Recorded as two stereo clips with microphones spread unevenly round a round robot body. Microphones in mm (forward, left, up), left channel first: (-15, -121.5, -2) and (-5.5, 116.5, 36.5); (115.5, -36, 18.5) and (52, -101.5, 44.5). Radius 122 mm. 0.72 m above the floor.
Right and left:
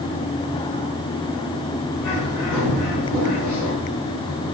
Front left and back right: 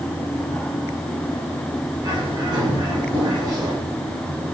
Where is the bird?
100° right, 3.5 m.